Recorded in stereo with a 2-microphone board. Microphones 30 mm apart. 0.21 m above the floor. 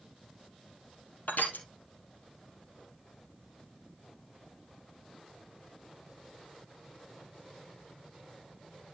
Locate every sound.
1.3 s crushing: 80° left, 2.5 m